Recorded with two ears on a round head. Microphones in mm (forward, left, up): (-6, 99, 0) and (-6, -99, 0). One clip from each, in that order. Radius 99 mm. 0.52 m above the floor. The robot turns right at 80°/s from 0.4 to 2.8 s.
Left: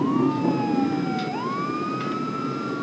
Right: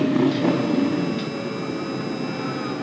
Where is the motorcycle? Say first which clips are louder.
Right 2 dB; 60° right; by 2.8 s 130° left.